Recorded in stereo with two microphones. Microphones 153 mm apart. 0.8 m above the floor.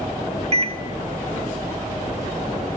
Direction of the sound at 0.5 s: 45° right (ahead or behind).